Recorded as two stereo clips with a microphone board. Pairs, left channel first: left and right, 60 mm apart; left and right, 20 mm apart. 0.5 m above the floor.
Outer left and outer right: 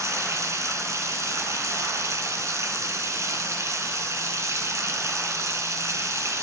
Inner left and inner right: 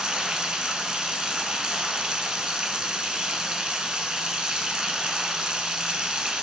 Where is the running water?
55° right (ahead or behind), 1.1 m.